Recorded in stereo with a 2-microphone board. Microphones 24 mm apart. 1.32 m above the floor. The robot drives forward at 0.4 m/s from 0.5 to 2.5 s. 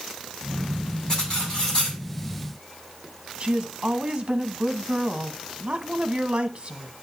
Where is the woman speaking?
35° right (ahead or behind), 1.4 m.